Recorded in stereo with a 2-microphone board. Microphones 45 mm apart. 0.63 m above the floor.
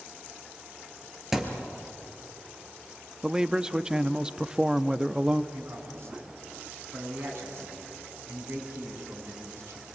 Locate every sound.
1.3 s a thud: 10° right (ahead or behind), 2.5 m
3.2 s a man speaking: 15° right (ahead or behind), 0.6 m
5.5 s a man speaking: 60° right (ahead or behind), 7 m